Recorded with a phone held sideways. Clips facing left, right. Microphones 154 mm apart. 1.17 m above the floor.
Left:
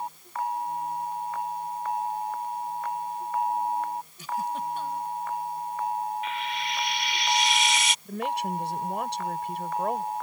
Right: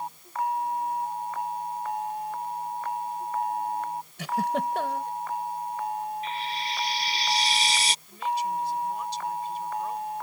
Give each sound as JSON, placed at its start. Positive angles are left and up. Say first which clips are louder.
{"t": 4.2, "sound": "a giggle", "louder": "right 5 dB", "side_deg": -80}
{"t": 6.2, "sound": "frying", "louder": "left 1 dB", "side_deg": -35}
{"t": 8.1, "sound": "a woman speaking", "louder": "right 1 dB", "side_deg": 70}